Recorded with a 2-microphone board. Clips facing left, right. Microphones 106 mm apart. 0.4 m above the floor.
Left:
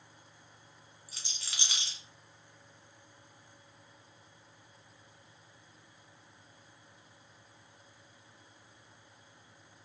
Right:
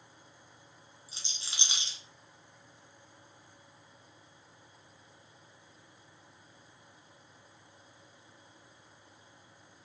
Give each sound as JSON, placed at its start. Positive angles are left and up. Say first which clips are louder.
{"t": 1.1, "sound": "a rattle", "louder": "even", "side_deg": -25, "distance_m": 0.8}